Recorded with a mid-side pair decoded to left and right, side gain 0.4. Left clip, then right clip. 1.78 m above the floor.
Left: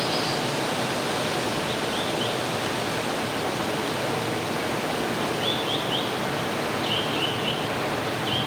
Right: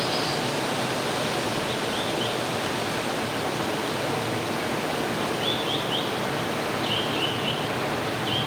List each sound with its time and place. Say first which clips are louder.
0.0 s running water: even; 5° left, 1.2 m